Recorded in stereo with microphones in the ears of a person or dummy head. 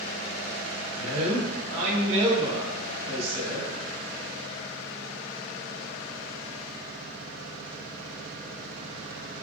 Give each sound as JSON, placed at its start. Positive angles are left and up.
{"t": 1.0, "sound": "a man speaking", "side_deg": -35, "distance_m": 1.2}